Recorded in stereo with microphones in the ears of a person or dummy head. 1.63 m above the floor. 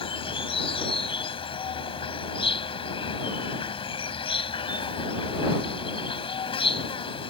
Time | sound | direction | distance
0.0 | an insect | 30° left (ahead or behind) | ?